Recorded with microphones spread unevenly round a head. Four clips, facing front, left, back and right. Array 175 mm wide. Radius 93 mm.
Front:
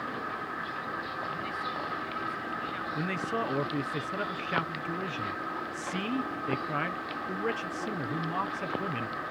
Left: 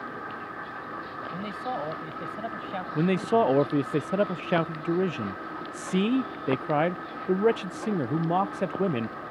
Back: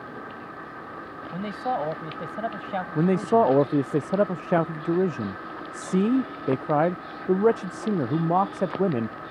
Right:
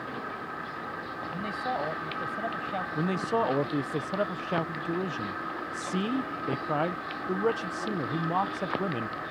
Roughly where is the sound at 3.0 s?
Behind.